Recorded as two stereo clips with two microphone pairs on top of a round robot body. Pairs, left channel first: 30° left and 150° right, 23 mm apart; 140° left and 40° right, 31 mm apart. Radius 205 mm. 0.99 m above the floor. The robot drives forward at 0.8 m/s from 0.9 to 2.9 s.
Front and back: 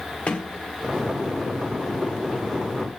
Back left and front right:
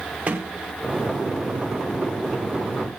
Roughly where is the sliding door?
Ahead.